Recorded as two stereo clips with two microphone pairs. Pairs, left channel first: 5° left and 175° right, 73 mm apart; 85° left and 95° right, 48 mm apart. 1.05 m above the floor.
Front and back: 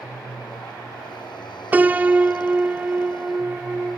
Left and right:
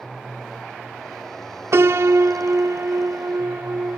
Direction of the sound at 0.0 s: Straight ahead.